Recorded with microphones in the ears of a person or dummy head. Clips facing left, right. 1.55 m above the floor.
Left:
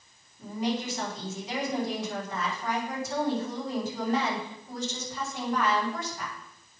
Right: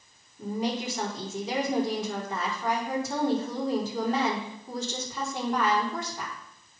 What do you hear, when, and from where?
0.4 s a woman speaking: 85° right, 4.5 m